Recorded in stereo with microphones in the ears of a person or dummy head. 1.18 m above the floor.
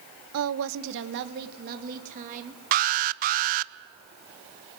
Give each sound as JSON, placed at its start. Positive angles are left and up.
{"t": 0.3, "sound": "a woman speaking", "side_deg": -75, "distance_m": 0.8}
{"t": 2.7, "sound": "an alarm", "side_deg": -45, "distance_m": 0.6}